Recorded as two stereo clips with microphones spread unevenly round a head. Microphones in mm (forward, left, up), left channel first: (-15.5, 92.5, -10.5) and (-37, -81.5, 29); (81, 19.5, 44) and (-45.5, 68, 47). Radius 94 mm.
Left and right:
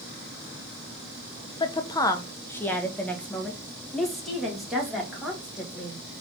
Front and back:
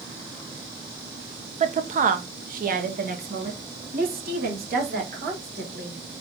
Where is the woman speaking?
135° left, 0.8 m; by 6.0 s 175° left, 3 m.